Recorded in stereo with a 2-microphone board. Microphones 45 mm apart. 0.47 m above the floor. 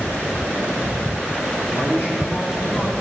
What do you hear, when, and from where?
1.7 s a man speaking: 60° left (ahead or behind), 4.5 m; by 3.0 s 45° left (ahead or behind), 3.5 m